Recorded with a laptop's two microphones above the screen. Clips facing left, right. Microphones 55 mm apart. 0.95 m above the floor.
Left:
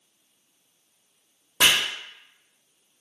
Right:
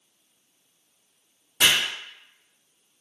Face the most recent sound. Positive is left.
turn(degrees=75)  # may be behind; listen again after turning